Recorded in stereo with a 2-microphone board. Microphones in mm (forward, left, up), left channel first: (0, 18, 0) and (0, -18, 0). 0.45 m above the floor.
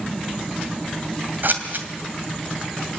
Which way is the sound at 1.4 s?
65° right (ahead or behind).